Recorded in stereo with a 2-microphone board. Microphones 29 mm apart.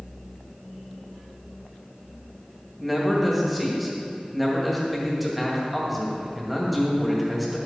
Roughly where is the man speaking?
Centre.